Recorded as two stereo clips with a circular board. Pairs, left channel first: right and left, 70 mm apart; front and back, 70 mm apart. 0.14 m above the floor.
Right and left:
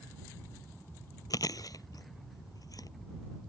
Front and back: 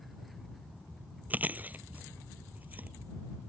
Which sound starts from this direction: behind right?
Chewing, at 1.3 s.